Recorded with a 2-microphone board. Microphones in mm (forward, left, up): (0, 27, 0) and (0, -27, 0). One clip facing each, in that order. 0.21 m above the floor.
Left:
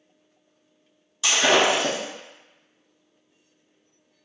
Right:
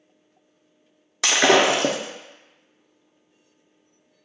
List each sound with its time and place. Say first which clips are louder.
1.2 s breaking glass: right 2 dB; 85° right, 0.5 m